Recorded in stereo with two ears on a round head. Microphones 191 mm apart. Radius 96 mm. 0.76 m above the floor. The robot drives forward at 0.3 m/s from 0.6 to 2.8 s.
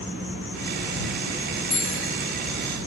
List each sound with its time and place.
0.0 s an insect: 65° left (ahead or behind), 1.9 m
1.7 s a bicycle bell: 75° left (ahead or behind), 4 m